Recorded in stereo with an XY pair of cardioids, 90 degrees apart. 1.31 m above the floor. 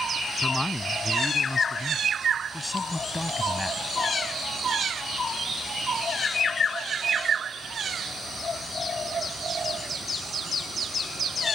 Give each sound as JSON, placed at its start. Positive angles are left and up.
{"t": 0.4, "sound": "a man speaking", "azimuth_deg": 20}